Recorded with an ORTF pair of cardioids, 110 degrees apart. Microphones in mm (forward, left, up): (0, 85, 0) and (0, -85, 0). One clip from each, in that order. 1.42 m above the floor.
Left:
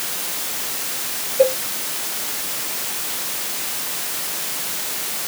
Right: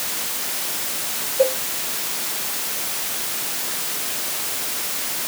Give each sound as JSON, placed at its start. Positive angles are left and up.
{"t": 1.4, "sound": "a cowbell", "azimuth_deg": 15}